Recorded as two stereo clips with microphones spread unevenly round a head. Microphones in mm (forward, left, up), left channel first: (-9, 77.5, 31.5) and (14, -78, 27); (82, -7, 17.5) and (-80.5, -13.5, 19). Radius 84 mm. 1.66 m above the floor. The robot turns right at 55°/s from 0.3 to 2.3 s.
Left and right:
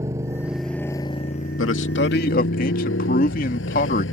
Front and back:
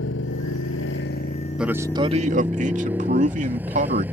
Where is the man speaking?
95° left; by 4.0 s 135° left.